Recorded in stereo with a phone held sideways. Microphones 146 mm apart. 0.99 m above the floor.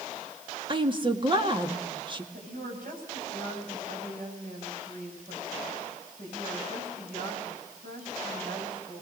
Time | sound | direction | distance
0.7 | a woman speaking | 35° right (ahead or behind) | 2 m
2.3 | a woman speaking | 80° right | 7 m